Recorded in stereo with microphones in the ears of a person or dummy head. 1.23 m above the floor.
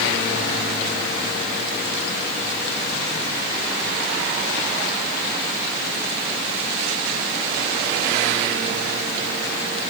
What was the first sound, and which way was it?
Only background noise.